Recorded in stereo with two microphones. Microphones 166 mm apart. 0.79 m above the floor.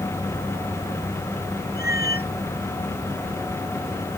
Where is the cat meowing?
75° left (ahead or behind).